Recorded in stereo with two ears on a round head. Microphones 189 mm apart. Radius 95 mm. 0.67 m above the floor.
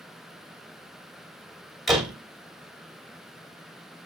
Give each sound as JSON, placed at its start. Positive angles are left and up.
{"t": 1.9, "sound": "a door slam", "side_deg": 0, "distance_m": 2.5}